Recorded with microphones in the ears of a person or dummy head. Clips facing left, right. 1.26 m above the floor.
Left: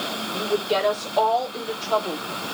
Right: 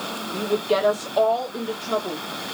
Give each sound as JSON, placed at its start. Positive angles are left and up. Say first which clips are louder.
{"t": 0.3, "sound": "a woman speaking", "louder": "right 2 dB", "side_deg": -45, "distance_m": 3.5}